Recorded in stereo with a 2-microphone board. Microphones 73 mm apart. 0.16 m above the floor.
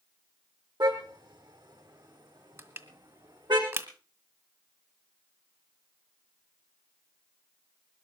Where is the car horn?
80° right, 4 m.